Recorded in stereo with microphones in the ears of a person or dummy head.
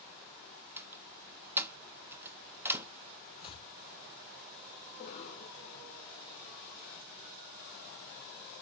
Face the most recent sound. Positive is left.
turn(degrees=35)  # may be behind; listen again after turning